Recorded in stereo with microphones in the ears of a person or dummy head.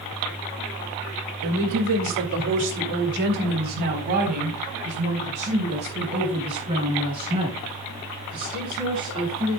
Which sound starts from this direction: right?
A woman speaking, at 1.4 s.